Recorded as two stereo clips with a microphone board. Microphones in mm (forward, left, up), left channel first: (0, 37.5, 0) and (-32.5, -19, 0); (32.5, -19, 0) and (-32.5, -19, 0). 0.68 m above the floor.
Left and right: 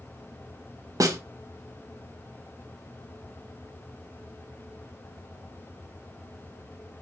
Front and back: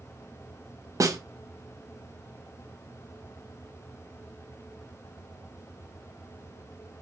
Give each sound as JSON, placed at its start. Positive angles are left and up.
{"t": 1.0, "sound": "a snare drum", "azimuth_deg": -145, "distance_m": 0.8}